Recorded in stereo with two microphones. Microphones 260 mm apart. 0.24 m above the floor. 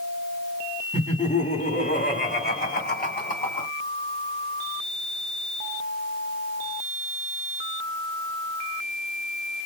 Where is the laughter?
25° left (ahead or behind), 2 m; by 3.7 s 30° left (ahead or behind), 2 m.